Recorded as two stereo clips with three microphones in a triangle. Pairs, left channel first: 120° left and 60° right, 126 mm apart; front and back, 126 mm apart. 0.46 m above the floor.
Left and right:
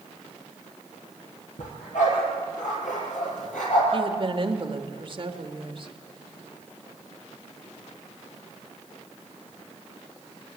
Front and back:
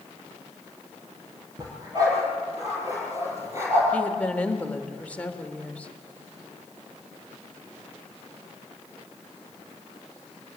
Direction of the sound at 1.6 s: 120° left.